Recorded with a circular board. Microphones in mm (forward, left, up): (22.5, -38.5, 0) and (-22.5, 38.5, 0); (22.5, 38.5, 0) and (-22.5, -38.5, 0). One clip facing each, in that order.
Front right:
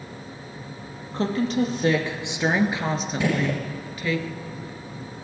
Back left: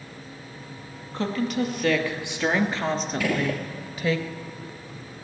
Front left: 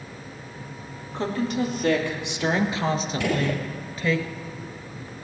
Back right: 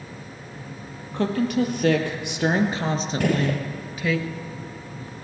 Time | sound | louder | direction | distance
1.1 | a woman speaking | front right 3 dB, back right 3 dB | 110° right | 2.5 m
3.2 | a gunshot | front right 3 dB, back right 4 dB | 115° right | 1.8 m